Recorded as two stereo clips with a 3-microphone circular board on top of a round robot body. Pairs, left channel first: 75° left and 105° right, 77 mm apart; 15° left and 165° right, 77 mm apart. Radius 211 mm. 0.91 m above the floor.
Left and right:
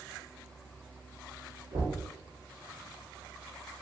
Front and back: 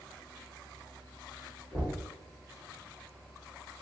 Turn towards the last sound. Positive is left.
turn(degrees=-75)